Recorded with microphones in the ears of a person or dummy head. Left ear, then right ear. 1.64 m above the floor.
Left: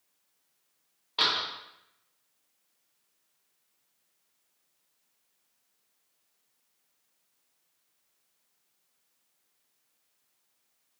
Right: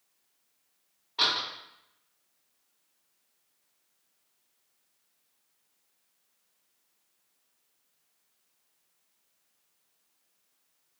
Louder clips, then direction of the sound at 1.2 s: Even; 20° left (ahead or behind).